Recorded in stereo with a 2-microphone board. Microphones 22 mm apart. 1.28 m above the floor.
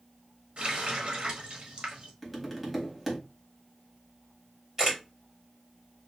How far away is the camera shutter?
About 1.8 m.